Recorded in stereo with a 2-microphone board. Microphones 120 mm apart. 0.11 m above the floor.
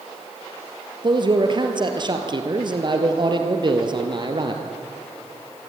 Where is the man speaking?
40° right (ahead or behind), 2.5 m.